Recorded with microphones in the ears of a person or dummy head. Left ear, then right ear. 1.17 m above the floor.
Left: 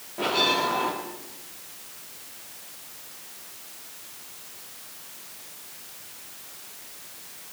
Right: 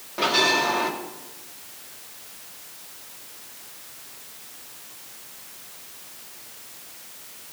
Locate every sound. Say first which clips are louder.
0.2 s a bell: right 3 dB; 45° right (ahead or behind), 1.8 m